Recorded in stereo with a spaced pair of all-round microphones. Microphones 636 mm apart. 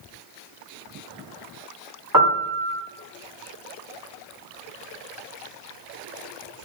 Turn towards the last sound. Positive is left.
turn(degrees=-30)  # may be behind; listen again after turning